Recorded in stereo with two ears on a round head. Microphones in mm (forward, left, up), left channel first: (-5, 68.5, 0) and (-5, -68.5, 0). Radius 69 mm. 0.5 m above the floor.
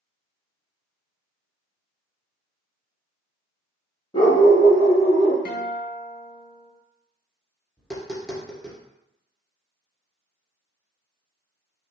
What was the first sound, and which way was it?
A dog barking, 35° left (ahead or behind).